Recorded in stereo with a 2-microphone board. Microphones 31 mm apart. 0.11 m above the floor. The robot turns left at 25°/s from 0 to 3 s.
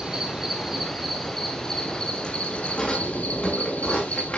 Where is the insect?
155° right, 2 m; by 4.4 s 130° left, 2 m.